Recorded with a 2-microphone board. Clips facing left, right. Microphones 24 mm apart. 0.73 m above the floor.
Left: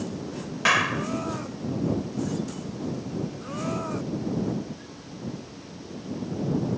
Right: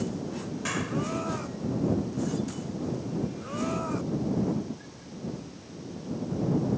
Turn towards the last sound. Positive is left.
turn(degrees=50)  # may be behind; listen again after turning